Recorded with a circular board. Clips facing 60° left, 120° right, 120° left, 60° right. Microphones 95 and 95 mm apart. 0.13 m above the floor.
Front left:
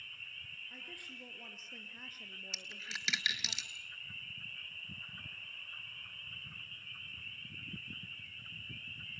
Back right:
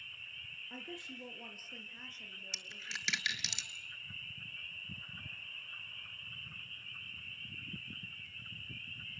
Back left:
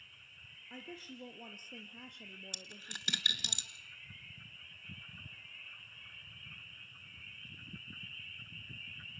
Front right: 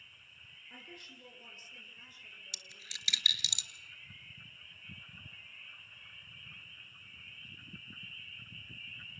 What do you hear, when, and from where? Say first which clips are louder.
0.7 s a woman speaking: back right 8 dB, back left 5 dB; 175° right, 2.5 m; by 3.5 s 120° left, 4 m
2.5 s a dropped coin: even, back left 4 dB; 150° left, 1.0 m